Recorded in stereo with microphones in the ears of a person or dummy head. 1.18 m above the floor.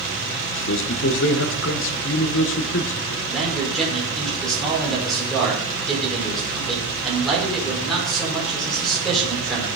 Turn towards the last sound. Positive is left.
turn(degrees=5)  # may be behind; listen again after turning